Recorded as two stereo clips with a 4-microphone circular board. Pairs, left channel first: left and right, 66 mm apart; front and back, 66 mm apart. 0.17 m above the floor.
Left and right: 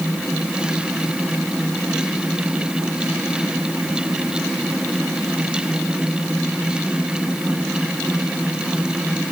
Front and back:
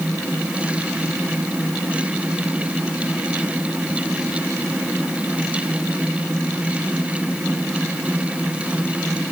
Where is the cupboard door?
I don't hear a cupboard door.